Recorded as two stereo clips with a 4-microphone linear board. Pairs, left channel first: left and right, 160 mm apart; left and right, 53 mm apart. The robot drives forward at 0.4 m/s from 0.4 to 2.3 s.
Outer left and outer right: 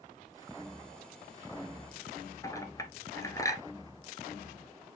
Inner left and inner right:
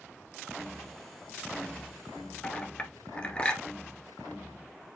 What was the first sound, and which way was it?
A clink, 20° left (ahead or behind).